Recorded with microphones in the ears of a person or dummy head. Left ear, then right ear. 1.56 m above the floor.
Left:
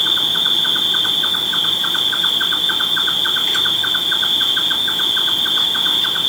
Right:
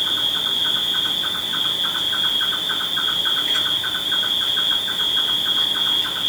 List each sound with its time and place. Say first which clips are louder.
0.0 s an insect: left 5 dB; 75° left (ahead or behind), 2.0 m